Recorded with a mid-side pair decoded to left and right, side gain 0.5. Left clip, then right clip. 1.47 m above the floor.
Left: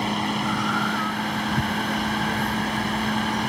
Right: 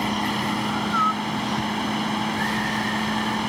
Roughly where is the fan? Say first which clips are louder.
Even; ahead.